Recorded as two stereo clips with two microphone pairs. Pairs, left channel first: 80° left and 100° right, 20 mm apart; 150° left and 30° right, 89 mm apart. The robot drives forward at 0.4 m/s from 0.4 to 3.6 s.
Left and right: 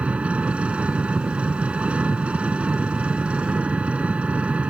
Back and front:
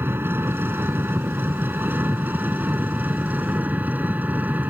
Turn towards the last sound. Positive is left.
turn(degrees=-105)